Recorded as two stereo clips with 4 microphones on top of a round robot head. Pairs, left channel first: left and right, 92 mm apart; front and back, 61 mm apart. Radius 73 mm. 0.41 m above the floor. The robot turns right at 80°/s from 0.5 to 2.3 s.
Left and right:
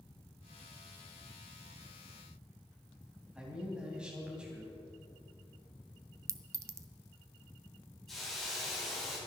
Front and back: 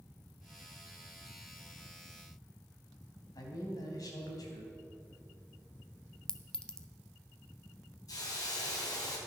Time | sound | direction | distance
3.3 | a man speaking | 10° right | 3 m
6.3 | a clink | 65° right | 0.6 m
8.1 | a hiss | straight ahead | 3.5 m